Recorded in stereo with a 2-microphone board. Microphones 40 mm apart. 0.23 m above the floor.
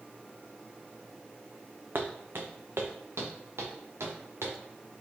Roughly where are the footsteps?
Right.